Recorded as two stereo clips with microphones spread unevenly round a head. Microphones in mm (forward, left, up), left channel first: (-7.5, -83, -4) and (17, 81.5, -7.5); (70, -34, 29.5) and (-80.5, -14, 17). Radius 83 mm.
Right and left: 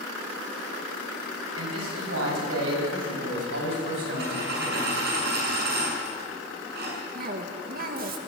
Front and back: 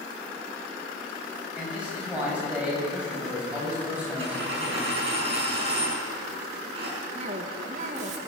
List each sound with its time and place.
1.6 s a man speaking: 90° left, 9 m
4.2 s a dropped coin: 115° left, 7.5 m
7.2 s a cough: 120° left, 2.5 m